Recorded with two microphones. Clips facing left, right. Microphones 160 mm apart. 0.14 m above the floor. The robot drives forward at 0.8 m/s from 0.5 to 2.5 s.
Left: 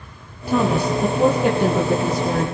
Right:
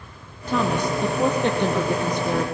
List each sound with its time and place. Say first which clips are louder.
0.5 s a woman speaking: left 4 dB; 10° left (ahead or behind), 2.5 m; by 2.5 s 5° left (ahead or behind), 4 m